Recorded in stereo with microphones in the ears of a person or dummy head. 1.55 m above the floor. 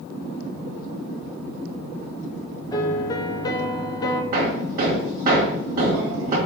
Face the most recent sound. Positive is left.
turn(degrees=-45)  # may be behind; listen again after turning